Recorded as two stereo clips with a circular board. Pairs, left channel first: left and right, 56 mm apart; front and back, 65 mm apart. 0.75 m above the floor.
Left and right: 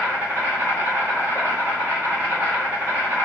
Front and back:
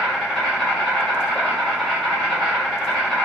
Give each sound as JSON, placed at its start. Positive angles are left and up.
{"t": 0.0, "sound": "an insect", "azimuth_deg": -85, "distance_m": 1.3}